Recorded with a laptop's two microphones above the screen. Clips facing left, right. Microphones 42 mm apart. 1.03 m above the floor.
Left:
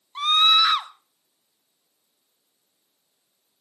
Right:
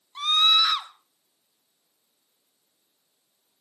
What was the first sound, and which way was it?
A scream, 20° left (ahead or behind).